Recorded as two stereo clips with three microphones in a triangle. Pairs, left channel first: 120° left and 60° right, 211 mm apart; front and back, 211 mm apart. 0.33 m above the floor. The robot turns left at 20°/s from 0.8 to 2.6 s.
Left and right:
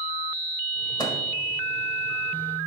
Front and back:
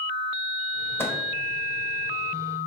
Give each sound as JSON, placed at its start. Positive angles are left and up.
{"t": 1.0, "sound": "a microwave", "azimuth_deg": 70, "distance_m": 1.2}